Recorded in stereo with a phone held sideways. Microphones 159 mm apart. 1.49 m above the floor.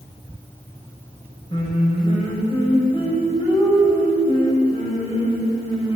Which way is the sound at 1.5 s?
35° left (ahead or behind).